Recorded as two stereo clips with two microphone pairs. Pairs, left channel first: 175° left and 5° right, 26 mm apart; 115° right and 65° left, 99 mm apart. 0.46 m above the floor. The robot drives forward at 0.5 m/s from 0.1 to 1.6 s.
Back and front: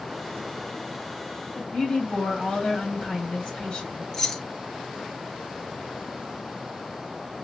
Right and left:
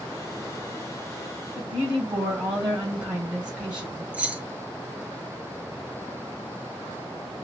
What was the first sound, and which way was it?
A woman speaking, 145° left.